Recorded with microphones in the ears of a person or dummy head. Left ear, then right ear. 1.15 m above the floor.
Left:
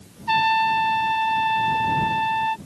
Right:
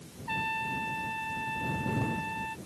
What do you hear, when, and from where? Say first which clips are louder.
0.3 s a trumpet: left 14 dB; 50° left (ahead or behind)